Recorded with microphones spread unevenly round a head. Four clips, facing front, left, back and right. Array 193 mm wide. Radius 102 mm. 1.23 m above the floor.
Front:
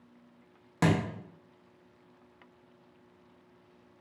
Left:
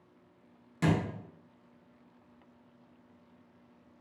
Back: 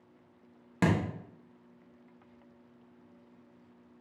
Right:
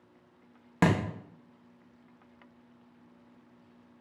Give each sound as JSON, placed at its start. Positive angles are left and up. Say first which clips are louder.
{"t": 0.8, "sound": "a thud", "louder": "right 3 dB, front 1 dB", "azimuth_deg": -90, "distance_m": 1.0}